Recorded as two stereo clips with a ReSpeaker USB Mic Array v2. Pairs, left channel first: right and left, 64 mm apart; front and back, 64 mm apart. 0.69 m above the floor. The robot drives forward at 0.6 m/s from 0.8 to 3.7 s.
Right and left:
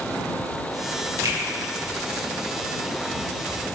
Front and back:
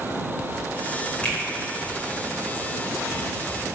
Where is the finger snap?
70° left, 2.5 m.